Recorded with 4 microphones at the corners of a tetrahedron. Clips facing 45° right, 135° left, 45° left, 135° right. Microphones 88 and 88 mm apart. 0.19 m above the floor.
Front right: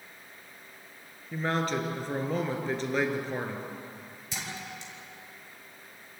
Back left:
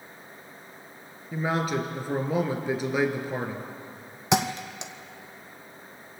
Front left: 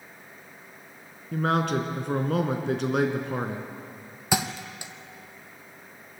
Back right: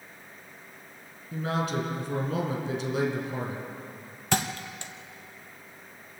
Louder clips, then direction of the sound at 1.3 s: Back left 2 dB, front left 5 dB; 55° left.